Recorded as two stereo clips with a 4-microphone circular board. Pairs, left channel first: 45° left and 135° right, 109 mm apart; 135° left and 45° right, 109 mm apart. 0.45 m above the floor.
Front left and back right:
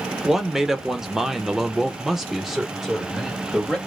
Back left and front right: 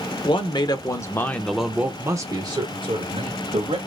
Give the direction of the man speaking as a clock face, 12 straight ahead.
7 o'clock.